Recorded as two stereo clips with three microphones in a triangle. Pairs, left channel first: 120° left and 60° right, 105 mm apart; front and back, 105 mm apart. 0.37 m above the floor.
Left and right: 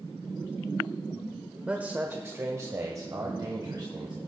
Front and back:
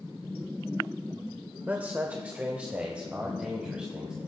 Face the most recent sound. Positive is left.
turn(degrees=-100)